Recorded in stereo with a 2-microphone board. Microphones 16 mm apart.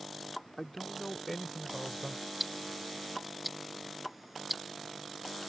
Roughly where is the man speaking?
Left.